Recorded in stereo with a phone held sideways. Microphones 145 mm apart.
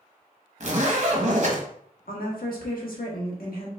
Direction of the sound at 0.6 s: 50° right (ahead or behind).